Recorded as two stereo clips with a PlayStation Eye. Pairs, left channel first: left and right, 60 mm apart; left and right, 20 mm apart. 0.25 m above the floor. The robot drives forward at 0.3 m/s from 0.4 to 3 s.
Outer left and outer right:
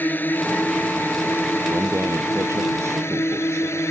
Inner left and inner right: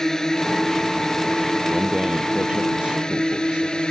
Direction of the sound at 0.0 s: 35° left (ahead or behind).